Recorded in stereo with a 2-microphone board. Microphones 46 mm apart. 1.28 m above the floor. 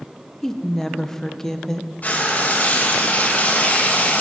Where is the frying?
40° left (ahead or behind), 1.4 m.